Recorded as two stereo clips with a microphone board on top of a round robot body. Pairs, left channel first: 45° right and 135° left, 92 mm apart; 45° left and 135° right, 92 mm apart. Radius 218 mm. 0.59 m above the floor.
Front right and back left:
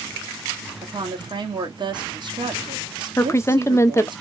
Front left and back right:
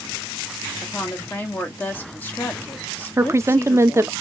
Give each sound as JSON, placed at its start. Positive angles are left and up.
{"t": 0.8, "sound": "a woman speaking", "azimuth_deg": 115, "distance_m": 1.6}
{"t": 3.2, "sound": "a woman speaking", "azimuth_deg": -90, "distance_m": 0.7}